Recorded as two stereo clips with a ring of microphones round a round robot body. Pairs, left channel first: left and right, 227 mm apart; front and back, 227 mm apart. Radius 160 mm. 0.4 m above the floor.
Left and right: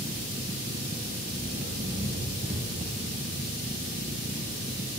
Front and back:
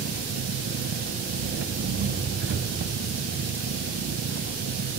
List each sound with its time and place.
0.0 s an engine running: 155° right, 1.5 m